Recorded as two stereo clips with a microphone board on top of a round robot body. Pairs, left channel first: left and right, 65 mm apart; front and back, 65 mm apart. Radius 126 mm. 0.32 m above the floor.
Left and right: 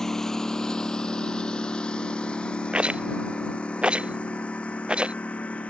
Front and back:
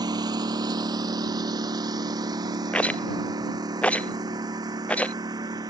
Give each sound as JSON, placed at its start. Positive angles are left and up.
{"t": 0.0, "sound": "a lawn mower", "azimuth_deg": 175}
{"t": 2.7, "sound": "a rattle", "azimuth_deg": -40}